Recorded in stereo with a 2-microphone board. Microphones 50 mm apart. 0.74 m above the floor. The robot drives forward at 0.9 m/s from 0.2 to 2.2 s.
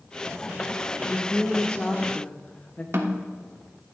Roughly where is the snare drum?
Right.